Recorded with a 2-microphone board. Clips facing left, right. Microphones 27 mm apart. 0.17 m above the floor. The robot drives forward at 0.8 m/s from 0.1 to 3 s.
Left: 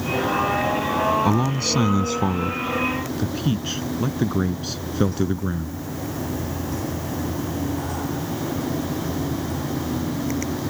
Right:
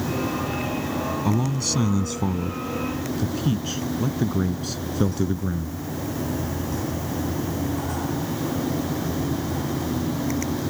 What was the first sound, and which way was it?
A man speaking, 25° left (ahead or behind).